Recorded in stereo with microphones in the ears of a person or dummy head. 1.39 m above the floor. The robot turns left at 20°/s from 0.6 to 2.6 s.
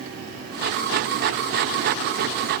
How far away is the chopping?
No chopping in this recording.